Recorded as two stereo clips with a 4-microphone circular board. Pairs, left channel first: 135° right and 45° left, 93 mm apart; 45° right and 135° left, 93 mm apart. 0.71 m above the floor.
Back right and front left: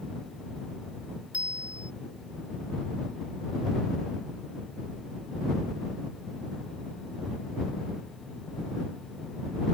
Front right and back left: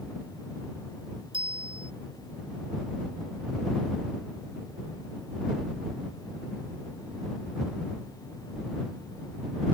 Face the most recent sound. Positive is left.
turn(degrees=120)